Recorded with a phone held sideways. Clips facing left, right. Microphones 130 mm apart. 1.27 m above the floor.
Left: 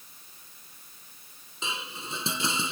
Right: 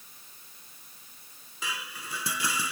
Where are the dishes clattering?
25° left (ahead or behind).